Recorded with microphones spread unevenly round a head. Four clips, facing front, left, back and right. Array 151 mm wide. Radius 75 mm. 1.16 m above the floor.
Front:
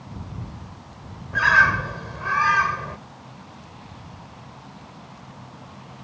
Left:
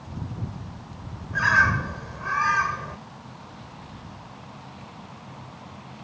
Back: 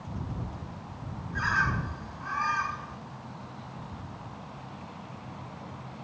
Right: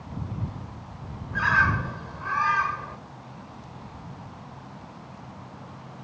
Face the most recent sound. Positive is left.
turn(degrees=20)